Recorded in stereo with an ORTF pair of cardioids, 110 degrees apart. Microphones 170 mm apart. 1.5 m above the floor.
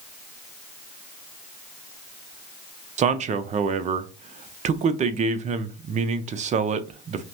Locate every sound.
3.0 s a man speaking: 45° right, 0.7 m